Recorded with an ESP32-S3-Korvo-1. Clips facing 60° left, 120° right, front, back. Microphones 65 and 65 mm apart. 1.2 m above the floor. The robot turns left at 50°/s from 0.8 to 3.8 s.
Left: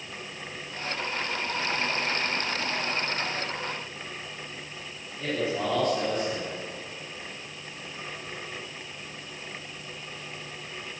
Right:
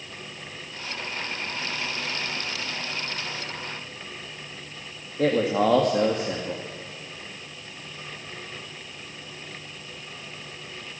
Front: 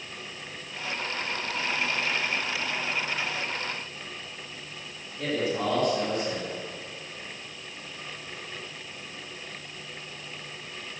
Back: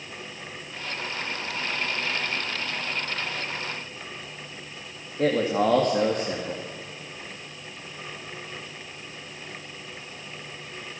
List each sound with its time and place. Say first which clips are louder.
5.2 s a man speaking: right 7 dB, back 6 dB; 130° right, 2 m